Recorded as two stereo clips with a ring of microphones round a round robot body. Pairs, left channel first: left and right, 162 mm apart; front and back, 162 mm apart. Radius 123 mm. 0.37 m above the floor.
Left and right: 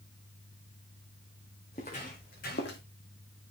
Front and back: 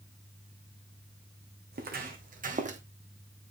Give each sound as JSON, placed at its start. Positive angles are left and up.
{"t": 1.7, "sound": "footsteps", "azimuth_deg": 155, "distance_m": 2.0}